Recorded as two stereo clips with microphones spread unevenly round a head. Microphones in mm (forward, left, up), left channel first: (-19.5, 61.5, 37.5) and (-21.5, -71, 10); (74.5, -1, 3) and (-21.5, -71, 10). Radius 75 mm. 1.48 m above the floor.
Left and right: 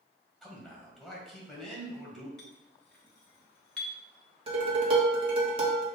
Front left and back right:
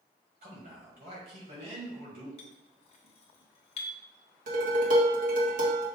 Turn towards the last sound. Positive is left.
turn(degrees=-145)